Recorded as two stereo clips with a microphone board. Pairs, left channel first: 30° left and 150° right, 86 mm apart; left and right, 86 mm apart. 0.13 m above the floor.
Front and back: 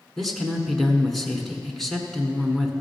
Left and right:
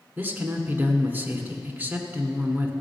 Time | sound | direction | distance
0.2 | a man speaking | 55° right | 1.4 m